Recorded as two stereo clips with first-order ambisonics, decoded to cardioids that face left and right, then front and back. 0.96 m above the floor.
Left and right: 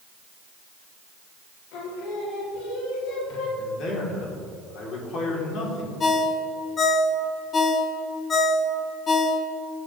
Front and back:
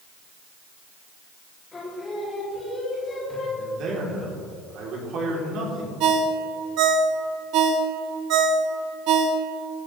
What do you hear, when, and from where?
1.7 s singing: 70° left, 2.5 m
3.6 s a man speaking: 135° left, 3 m
6.0 s a ringtone: 155° left, 0.9 m